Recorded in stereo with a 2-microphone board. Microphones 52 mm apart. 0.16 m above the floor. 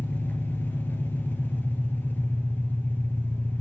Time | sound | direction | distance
0.0 | an engine running | 40° left (ahead or behind) | 1.2 m